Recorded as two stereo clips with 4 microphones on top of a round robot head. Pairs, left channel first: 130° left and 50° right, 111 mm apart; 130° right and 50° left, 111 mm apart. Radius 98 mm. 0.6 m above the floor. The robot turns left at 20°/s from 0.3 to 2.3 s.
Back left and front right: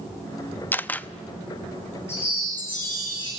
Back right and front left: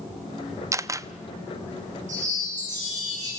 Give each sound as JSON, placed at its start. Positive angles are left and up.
{"t": 0.7, "sound": "a camera shutter", "azimuth_deg": 75, "distance_m": 0.7}
{"t": 2.1, "sound": "a chime", "azimuth_deg": 60, "distance_m": 9.0}